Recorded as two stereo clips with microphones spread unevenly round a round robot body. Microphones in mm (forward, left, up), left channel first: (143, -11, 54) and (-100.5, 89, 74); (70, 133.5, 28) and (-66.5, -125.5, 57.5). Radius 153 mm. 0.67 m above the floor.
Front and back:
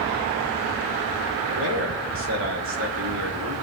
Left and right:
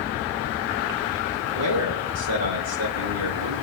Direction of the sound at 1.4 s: 155° right.